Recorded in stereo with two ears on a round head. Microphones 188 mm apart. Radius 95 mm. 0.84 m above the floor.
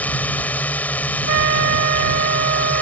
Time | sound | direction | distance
0.0 | a drone | 10° left (ahead or behind) | ?
1.3 | a trumpet | 60° right (ahead or behind) | ?